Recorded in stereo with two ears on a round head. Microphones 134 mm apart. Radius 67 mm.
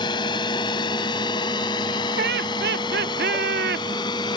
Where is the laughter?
70° right (ahead or behind).